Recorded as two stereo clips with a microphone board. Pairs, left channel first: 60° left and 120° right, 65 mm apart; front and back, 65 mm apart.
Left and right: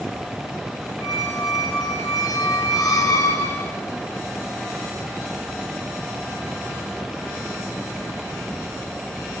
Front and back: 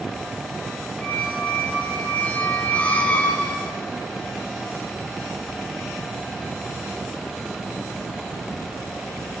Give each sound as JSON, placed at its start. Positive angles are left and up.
{"t": 1.0, "sound": "a squeak", "azimuth_deg": 65, "distance_m": 1.7}